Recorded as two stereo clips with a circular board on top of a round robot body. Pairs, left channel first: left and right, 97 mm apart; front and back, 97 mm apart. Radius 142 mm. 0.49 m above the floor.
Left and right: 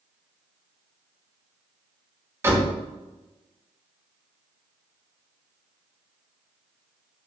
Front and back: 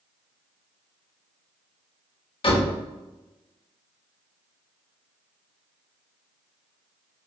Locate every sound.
2.4 s a door slam: 25° right, 2.5 m